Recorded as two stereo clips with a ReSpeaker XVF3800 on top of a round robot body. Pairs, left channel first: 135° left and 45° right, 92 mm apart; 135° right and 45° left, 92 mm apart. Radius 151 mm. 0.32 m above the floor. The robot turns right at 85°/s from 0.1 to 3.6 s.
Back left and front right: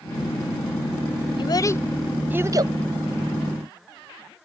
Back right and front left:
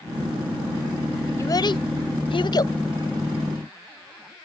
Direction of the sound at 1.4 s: 165° left.